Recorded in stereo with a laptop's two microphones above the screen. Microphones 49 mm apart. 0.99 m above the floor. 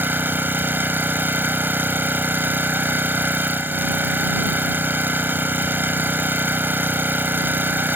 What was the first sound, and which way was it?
An engine running, 45° right (ahead or behind).